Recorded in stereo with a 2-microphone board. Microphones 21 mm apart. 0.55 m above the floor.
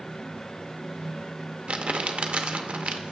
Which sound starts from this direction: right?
Crumpling, at 1.7 s.